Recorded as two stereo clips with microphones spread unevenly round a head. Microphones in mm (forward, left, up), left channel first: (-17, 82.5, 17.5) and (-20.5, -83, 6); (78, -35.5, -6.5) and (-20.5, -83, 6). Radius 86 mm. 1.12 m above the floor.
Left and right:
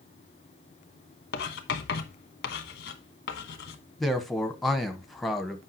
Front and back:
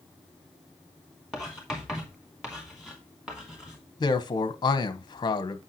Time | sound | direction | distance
1.3 | writing | 115° left | 1.2 m
4.0 | a man speaking | 5° right | 0.9 m